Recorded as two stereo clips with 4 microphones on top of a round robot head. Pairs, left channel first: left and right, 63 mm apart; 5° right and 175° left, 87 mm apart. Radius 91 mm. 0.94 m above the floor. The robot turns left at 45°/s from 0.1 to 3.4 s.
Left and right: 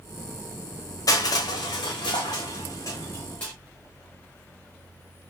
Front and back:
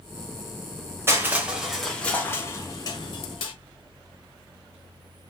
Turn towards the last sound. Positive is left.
turn(degrees=10)